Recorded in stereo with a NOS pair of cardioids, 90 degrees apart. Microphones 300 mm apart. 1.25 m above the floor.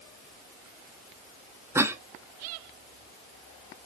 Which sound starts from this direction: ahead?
A cough, at 1.8 s.